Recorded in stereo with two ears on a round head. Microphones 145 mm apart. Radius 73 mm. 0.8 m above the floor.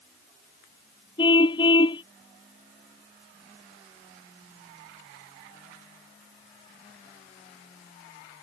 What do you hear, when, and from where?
1.2 s a car horn: 30° left (ahead or behind)